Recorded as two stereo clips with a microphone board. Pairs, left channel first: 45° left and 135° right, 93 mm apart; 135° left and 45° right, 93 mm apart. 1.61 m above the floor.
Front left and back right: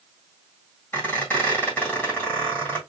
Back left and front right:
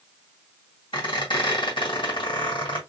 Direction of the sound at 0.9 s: 115° left.